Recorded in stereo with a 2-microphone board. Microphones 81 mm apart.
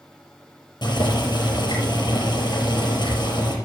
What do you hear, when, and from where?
0.8 s boiling: 65° left (ahead or behind), 4.5 m